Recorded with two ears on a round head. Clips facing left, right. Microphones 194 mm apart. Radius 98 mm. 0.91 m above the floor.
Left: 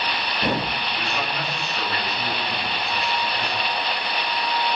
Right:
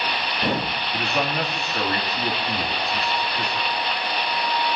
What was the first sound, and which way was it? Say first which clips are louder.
A man speaking: right 8 dB; 40° right (ahead or behind).